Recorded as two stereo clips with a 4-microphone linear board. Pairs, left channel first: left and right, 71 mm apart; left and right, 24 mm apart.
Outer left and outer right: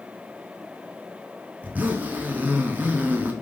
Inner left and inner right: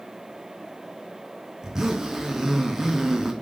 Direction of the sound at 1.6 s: 25° right (ahead or behind).